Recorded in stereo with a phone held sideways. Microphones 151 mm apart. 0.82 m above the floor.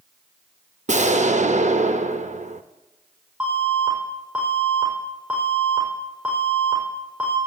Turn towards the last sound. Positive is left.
turn(degrees=-10)  # may be behind; listen again after turning